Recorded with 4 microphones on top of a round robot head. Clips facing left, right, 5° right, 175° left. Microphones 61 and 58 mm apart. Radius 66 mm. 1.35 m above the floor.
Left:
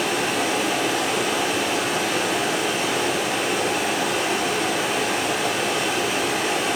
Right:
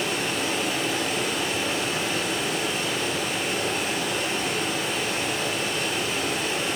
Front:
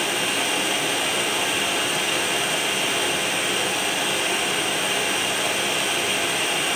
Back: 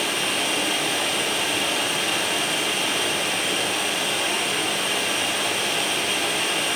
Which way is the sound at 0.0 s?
80° left.